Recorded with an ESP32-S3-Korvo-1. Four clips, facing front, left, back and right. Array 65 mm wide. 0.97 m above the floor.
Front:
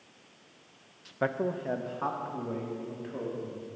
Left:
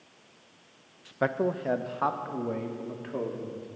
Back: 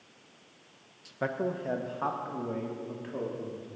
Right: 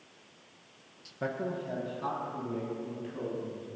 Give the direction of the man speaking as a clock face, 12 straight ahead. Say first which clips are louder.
Left 7 dB, front 1 dB; 10 o'clock.